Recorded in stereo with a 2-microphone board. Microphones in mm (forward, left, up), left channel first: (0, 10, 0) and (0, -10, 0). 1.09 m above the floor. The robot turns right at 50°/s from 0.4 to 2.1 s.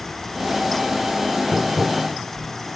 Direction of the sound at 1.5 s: 45° left (ahead or behind).